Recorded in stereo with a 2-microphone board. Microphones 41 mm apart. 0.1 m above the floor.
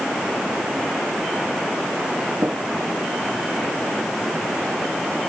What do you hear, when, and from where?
2.4 s tapping: 80° right, 5 m